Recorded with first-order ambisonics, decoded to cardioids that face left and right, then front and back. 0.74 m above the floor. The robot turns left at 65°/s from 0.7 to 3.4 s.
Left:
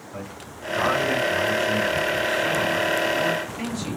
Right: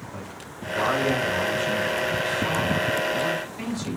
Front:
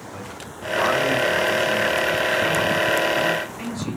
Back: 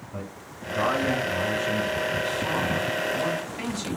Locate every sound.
0.1 s a man speaking: 10° right, 1.6 m; by 4.0 s 175° left, 1.6 m